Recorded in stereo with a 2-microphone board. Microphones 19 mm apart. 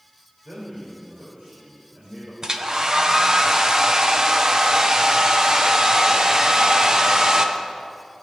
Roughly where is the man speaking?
Right.